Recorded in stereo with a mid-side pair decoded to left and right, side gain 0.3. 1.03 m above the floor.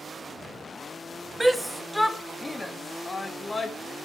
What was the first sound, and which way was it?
A shout, 15° right.